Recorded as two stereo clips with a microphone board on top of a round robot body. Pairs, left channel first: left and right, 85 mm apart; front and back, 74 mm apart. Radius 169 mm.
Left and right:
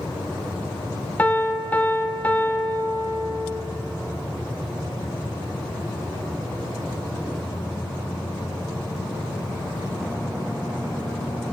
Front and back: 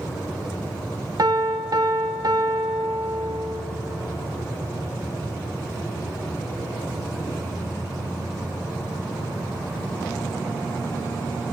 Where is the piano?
160° left, 0.6 m.